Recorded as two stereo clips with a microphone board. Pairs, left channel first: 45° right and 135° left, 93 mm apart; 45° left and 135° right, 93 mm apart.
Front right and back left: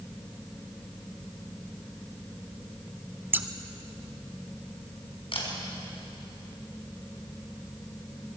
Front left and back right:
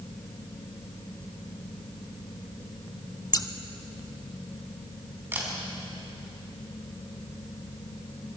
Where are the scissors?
75° left, 0.9 m.